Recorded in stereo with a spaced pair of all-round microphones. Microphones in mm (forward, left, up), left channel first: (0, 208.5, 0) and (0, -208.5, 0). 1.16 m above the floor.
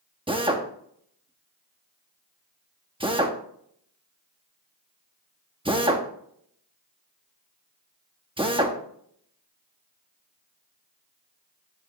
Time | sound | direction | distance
0.3 | a drill | 10° right (ahead or behind) | 1.0 m